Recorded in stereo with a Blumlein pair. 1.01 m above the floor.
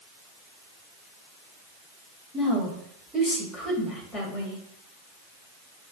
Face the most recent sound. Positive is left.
turn(degrees=10)